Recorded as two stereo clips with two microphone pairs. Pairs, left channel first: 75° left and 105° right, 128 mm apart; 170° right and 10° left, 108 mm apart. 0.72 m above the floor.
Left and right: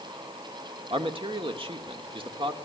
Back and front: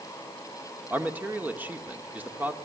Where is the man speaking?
60° right, 1.7 m.